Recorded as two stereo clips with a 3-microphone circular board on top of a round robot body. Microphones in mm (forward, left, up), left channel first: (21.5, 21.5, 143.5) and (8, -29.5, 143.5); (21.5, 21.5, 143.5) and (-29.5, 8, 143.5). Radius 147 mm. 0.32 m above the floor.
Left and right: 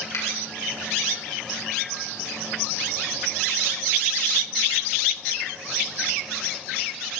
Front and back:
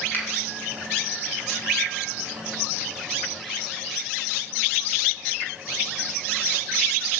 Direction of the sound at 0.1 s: 70° left.